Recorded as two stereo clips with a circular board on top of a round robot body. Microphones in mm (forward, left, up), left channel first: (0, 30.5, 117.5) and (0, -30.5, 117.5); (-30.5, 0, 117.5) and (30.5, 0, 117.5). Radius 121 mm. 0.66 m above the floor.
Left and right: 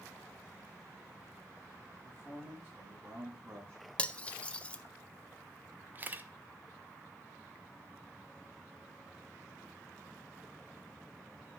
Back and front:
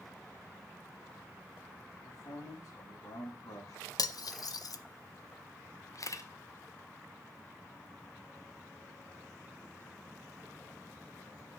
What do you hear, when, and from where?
1.9 s a man speaking: 160° right, 7 m; by 3.9 s 150° right, 6 m
4.0 s cutlery clinking: 160° left, 0.6 m
6.0 s a camera shutter: 150° right, 0.9 m